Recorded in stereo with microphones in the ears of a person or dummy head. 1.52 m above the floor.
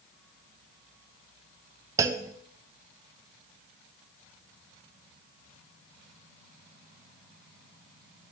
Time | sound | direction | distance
2.0 | a clunk | 10° right (ahead or behind) | 0.8 m